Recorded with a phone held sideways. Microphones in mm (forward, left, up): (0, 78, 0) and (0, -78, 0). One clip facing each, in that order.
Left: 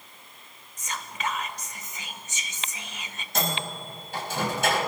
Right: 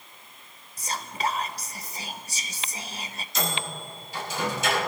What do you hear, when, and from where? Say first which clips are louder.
0.8 s whispering: right 4 dB; 35° right (ahead or behind), 0.9 m
3.4 s a microwave: left 1 dB; 60° left (ahead or behind), 5 m